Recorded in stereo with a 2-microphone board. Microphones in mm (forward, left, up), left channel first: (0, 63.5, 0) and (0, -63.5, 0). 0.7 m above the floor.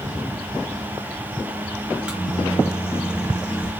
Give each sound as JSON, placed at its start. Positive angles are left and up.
{"t": 1.9, "sound": "a microwave", "side_deg": -5, "distance_m": 0.6}